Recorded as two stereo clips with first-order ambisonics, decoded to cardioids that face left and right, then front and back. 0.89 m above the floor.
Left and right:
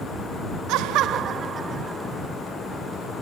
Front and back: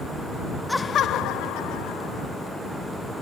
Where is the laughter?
85° right; by 2.4 s 10° right.